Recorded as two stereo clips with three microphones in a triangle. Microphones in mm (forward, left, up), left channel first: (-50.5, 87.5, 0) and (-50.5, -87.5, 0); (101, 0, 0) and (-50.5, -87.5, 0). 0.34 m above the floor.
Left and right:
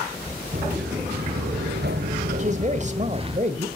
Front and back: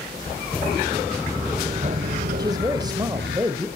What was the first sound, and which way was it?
Footsteps, 55° right.